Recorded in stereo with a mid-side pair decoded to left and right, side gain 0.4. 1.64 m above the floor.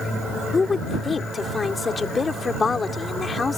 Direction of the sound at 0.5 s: 35° left.